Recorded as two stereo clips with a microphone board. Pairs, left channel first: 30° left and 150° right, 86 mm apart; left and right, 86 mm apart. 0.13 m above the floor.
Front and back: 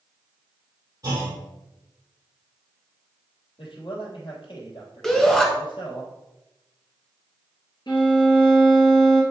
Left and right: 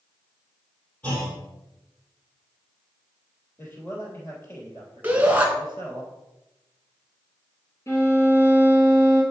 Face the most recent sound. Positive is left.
turn(degrees=40)